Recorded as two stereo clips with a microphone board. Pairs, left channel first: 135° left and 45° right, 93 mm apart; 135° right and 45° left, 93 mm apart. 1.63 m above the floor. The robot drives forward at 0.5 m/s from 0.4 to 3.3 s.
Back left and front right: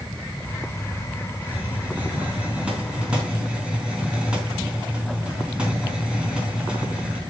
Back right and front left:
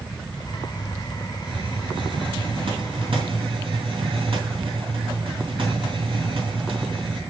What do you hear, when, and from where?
1.4 s a hiss: 25° left, 4 m; by 7.2 s 30° left, 3.5 m